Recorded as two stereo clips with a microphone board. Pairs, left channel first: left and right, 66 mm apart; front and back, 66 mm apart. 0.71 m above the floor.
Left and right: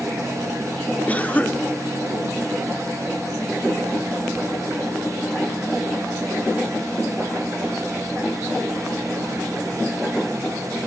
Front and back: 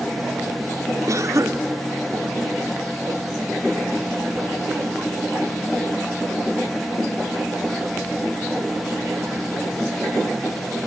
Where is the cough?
155° left, 1.7 m.